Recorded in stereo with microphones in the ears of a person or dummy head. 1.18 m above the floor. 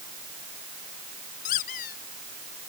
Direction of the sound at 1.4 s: 50° left (ahead or behind).